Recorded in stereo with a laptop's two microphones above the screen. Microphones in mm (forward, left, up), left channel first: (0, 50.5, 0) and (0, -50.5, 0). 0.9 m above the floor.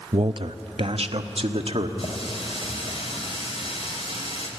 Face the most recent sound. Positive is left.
turn(degrees=80)